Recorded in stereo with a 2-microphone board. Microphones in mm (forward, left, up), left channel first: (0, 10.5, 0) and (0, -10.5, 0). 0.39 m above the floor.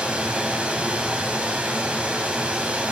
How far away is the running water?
About 1.9 m.